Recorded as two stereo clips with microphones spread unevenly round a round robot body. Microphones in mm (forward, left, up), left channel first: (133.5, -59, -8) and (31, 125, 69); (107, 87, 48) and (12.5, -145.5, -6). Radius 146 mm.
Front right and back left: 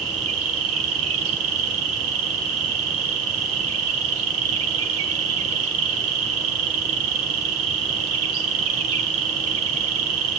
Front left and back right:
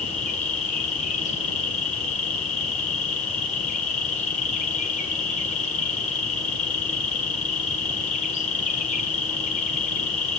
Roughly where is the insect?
Behind left.